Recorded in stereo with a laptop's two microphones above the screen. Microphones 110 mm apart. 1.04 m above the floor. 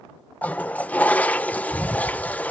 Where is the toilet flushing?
15° left (ahead or behind).